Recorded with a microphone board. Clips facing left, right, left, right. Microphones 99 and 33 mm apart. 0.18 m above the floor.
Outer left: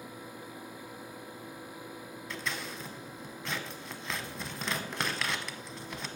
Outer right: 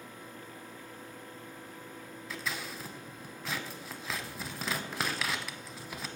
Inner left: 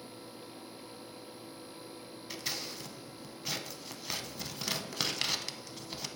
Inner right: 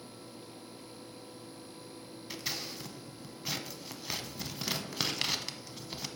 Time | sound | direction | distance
2.3 | scissors | centre (ahead or behind) | 0.5 m